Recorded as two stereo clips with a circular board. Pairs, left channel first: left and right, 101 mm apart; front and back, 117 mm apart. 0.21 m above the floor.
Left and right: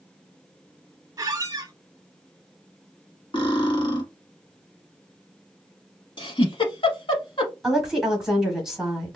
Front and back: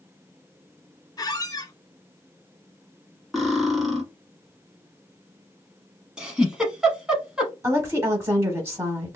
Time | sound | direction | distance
1.2 | a squeak | 45° right | 0.5 m
3.3 | cutlery clinking | 90° left | 1.1 m
6.2 | a giggle | 95° left | 0.8 m
7.6 | a woman speaking | 170° right | 1.0 m